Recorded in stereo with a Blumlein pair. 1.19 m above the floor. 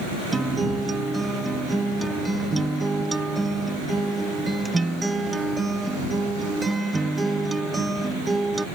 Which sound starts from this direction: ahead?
A guitar, at 0.3 s.